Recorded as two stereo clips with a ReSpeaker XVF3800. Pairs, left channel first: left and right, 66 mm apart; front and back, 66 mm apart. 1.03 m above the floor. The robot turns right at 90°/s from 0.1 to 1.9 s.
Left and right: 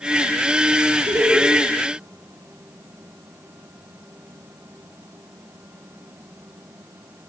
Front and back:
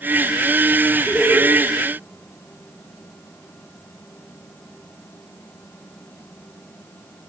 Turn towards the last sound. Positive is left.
turn(degrees=0)